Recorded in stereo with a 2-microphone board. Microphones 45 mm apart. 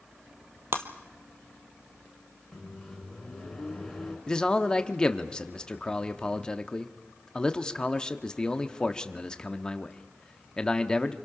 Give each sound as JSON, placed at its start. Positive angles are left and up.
{"t": 0.7, "sound": "breaking glass", "side_deg": -60, "distance_m": 1.6}
{"t": 2.5, "sound": "a microwave", "side_deg": 5, "distance_m": 5.0}
{"t": 4.3, "sound": "a man speaking", "side_deg": 15, "distance_m": 1.0}